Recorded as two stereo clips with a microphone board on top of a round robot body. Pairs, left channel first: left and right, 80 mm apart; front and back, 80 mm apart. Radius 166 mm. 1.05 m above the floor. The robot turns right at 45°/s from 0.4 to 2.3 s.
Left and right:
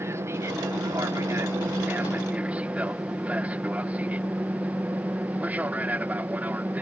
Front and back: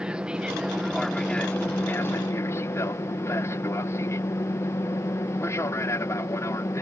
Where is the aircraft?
110° right; by 6.8 s 30° right.